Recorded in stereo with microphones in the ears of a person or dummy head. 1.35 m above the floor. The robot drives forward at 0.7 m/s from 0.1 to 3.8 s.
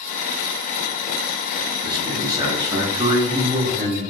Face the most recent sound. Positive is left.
turn(degrees=-10)  # may be behind; listen again after turning